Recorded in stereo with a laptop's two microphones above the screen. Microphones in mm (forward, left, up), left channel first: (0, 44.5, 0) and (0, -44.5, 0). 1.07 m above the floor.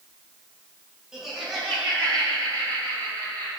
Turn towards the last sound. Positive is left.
turn(degrees=25)  # may be behind; listen again after turning